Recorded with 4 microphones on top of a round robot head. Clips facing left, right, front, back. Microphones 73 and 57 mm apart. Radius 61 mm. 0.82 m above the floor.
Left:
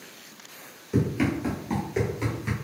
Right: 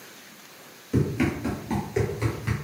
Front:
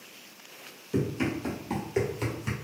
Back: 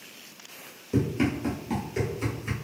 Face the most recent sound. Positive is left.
turn(degrees=0)